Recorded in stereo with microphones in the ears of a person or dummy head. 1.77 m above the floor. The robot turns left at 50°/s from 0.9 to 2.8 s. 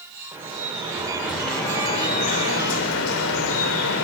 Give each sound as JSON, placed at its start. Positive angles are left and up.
{"t": 0.3, "sound": "dripping", "azimuth_deg": -155, "distance_m": 2.0}